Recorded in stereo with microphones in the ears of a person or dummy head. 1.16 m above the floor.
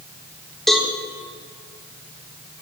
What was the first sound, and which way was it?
A cowbell, centre (ahead or behind).